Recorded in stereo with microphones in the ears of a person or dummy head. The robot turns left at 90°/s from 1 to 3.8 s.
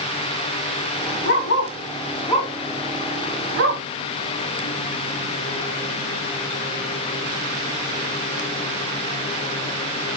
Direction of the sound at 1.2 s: 40° left (ahead or behind).